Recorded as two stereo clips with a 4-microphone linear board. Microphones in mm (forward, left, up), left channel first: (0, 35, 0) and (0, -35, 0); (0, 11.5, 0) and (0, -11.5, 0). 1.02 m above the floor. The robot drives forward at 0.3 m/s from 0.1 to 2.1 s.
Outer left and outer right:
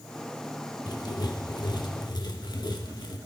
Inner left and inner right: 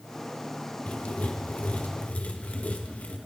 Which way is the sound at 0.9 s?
65° left (ahead or behind).